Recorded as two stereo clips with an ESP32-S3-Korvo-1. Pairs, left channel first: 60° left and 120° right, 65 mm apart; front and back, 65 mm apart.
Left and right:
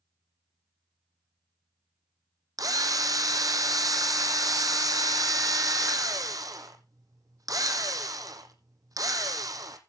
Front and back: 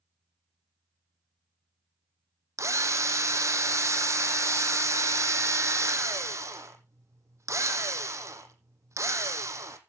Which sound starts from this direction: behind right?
A drill, at 2.6 s.